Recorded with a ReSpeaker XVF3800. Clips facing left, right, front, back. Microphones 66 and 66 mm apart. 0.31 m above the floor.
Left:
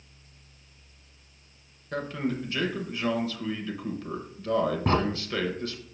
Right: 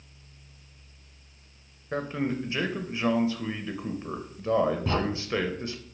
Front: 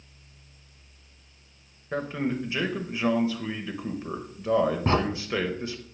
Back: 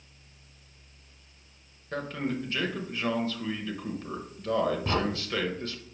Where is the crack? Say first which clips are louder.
Left 4 dB, front 6 dB; 45° left, 1.4 m.